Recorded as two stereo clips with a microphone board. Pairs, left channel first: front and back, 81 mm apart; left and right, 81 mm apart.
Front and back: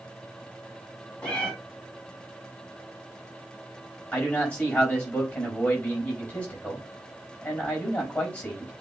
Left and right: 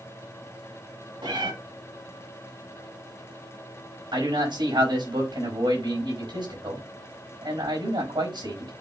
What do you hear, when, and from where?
1.2 s a cat meowing: 75° right, 2.5 m
4.1 s a man speaking: 70° right, 5 m